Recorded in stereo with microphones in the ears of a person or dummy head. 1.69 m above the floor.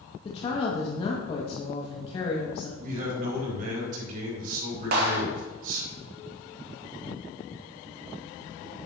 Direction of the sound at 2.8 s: 50° right (ahead or behind).